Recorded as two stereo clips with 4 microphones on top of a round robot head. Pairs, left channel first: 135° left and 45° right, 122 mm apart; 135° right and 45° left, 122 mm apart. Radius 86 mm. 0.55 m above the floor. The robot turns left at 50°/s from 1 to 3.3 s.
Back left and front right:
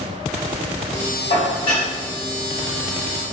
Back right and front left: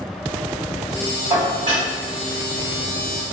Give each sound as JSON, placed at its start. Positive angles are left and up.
{"t": 1.3, "sound": "dishes clattering", "azimuth_deg": 105, "distance_m": 1.5}